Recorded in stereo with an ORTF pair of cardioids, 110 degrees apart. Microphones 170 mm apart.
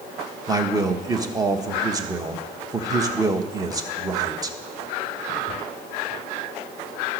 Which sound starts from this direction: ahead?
A man speaking, at 0.5 s.